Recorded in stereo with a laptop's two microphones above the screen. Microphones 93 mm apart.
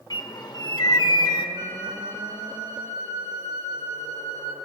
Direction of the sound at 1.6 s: 50° right (ahead or behind).